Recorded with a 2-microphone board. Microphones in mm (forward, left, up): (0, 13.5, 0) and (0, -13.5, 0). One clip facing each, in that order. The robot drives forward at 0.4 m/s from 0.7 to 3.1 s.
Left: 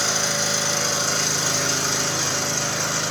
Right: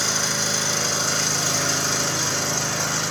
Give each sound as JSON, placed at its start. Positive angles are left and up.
{"t": 0.0, "sound": "an engine running", "side_deg": -5, "distance_m": 6.5}